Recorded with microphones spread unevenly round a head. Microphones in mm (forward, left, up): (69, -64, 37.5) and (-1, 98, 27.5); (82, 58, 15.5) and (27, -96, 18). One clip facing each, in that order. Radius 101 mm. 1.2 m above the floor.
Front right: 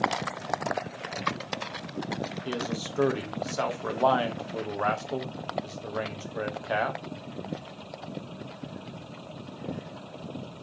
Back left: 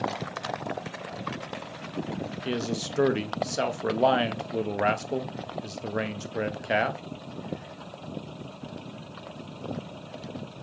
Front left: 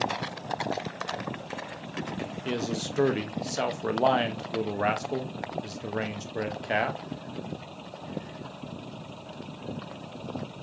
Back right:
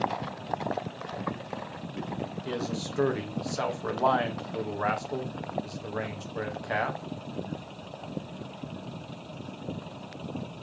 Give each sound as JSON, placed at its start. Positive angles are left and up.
{"t": 2.5, "sound": "a man speaking", "azimuth_deg": 95, "distance_m": 0.5}